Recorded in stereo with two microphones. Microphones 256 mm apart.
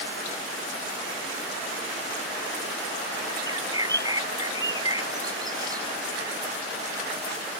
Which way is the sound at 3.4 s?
15° right (ahead or behind).